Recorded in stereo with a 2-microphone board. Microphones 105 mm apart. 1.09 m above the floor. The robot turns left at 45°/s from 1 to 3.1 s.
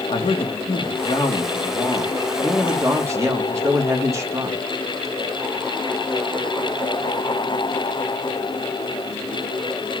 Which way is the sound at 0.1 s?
65° left.